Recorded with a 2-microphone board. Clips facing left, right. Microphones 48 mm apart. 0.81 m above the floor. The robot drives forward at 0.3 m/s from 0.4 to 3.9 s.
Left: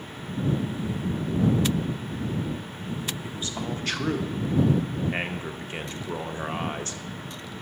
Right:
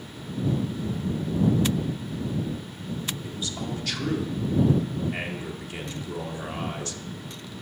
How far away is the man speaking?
About 0.6 m.